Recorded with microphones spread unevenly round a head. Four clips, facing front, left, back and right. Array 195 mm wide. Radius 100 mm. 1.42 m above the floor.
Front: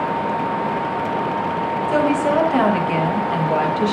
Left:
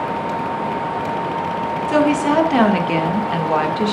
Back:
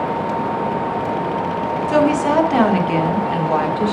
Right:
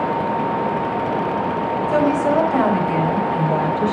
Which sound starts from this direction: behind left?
A woman speaking, at 1.9 s.